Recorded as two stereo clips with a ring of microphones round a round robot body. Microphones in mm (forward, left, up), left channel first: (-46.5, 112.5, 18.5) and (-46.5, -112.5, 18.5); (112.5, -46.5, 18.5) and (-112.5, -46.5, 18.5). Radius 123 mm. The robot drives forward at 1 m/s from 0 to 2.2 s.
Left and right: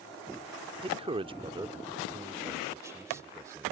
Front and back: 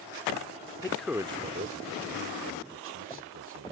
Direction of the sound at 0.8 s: 50° right.